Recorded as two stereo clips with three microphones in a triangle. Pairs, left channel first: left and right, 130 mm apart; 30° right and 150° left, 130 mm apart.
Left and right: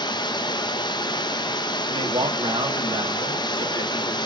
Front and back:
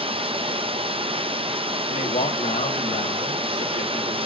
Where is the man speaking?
40° right, 2 m.